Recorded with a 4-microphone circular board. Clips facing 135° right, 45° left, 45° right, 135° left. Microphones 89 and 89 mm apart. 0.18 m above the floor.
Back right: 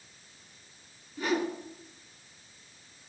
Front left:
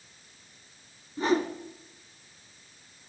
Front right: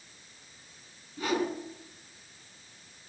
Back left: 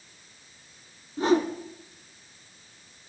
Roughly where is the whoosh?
Left.